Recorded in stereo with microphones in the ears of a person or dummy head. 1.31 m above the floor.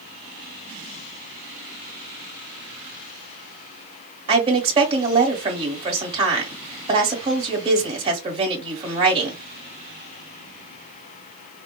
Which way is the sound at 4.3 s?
25° right (ahead or behind).